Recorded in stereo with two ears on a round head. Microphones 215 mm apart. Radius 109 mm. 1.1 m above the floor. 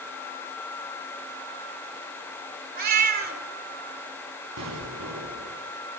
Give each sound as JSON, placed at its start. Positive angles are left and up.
{"t": 2.8, "sound": "a cat meowing", "side_deg": -40, "distance_m": 2.5}
{"t": 4.6, "sound": "an explosion", "side_deg": -75, "distance_m": 4.5}